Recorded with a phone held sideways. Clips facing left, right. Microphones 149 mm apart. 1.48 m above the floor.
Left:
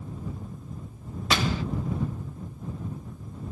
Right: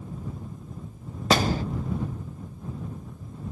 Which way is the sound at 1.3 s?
45° right (ahead or behind).